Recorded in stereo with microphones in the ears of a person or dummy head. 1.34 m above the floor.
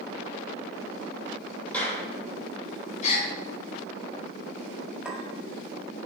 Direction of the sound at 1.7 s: 10° left (ahead or behind).